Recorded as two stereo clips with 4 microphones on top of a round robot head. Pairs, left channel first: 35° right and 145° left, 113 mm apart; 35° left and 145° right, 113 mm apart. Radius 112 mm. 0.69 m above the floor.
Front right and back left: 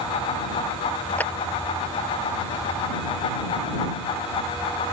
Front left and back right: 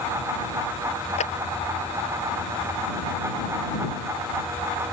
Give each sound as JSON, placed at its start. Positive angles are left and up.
{"t": 1.2, "sound": "a clap", "azimuth_deg": 40}